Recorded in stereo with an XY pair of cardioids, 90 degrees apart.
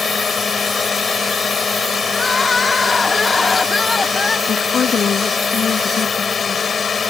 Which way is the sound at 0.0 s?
45° left.